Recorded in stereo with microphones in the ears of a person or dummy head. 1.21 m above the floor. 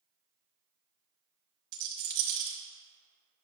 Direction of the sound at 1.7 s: 65° right (ahead or behind).